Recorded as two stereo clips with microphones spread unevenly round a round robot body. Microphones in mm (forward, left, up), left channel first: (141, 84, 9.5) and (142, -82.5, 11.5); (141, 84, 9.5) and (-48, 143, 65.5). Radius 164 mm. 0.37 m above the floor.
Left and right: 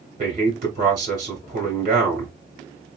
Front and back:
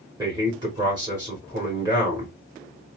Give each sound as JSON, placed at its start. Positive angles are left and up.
{"t": 0.2, "sound": "a man speaking", "azimuth_deg": -115, "distance_m": 1.5}